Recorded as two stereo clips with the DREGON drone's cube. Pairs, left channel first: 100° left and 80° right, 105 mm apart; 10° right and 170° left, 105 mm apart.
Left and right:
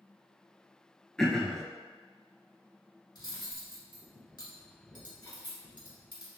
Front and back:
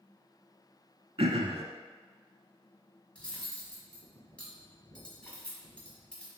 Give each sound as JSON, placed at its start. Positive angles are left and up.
{"t": 1.2, "sound": "throat clearing", "azimuth_deg": -175, "distance_m": 0.5}
{"t": 3.1, "sound": "cutlery clinking", "azimuth_deg": 65, "distance_m": 1.3}